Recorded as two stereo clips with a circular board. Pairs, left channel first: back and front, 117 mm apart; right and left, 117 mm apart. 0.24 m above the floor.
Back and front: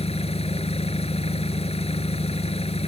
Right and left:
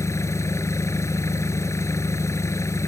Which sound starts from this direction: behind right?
An engine running, at 0.0 s.